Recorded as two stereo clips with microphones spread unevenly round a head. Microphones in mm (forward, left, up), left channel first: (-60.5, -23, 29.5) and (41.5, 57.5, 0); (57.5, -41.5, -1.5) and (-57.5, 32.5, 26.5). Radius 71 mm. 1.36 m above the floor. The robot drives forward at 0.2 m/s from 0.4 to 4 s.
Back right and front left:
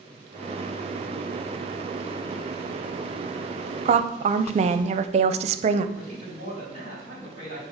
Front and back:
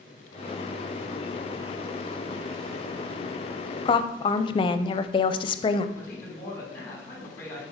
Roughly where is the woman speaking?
Ahead.